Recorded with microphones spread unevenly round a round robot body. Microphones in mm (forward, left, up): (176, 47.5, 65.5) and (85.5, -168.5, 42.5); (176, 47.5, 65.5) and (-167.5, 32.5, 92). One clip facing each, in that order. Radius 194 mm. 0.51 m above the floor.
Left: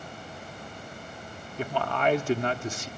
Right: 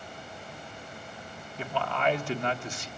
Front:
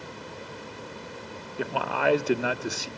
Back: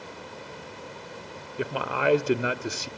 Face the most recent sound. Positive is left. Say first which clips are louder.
# left 3 dB, even
turn(degrees=90)